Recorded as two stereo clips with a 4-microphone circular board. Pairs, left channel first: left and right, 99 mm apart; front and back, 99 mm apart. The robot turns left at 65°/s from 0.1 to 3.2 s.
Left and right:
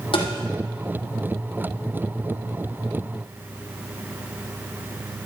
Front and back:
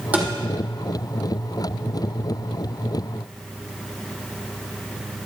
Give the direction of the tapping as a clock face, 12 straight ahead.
8 o'clock.